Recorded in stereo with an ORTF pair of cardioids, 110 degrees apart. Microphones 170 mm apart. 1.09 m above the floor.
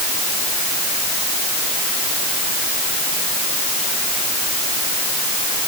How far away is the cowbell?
I don't hear a cowbell.